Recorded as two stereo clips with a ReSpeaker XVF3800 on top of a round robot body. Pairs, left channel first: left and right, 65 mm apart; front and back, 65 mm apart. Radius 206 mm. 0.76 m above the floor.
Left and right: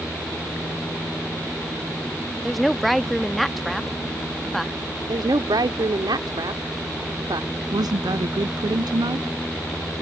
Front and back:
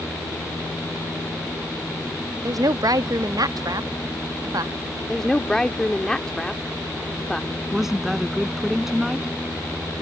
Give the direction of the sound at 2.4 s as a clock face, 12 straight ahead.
6 o'clock.